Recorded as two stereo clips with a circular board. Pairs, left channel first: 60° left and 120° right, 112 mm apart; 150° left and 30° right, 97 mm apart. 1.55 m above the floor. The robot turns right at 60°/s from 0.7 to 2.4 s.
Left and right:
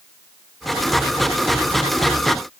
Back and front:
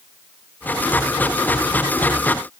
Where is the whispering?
No whispering in this recording.